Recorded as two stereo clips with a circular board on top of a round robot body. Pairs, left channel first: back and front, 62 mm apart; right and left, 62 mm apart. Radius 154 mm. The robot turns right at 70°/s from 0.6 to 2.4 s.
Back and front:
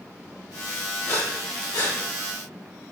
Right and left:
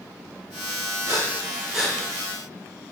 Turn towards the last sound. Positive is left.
turn(degrees=-145)